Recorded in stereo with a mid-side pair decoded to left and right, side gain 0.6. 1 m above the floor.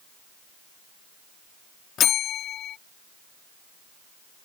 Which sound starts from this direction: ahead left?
A bell, at 2.0 s.